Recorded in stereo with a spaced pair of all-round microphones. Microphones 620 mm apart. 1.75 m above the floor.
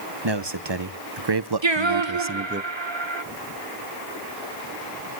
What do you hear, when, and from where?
0.2 s a man speaking: 45° right (ahead or behind), 1.3 m; by 2.6 s 20° right (ahead or behind), 0.6 m
1.6 s singing: 45° right (ahead or behind), 1.4 m